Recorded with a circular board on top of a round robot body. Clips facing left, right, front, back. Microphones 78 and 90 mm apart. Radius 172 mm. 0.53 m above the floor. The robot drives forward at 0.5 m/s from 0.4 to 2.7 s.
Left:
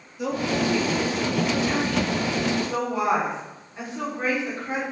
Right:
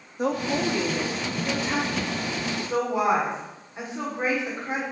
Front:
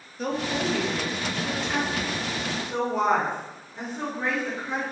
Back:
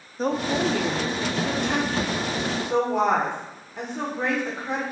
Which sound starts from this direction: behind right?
A woman speaking, at 0.2 s.